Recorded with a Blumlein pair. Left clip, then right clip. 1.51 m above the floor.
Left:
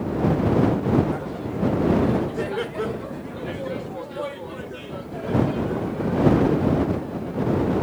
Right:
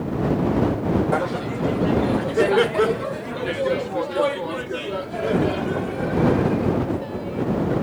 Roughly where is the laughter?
Ahead right.